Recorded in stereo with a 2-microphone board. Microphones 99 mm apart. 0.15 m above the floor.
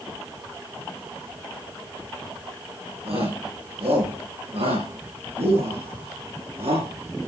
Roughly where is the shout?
Right.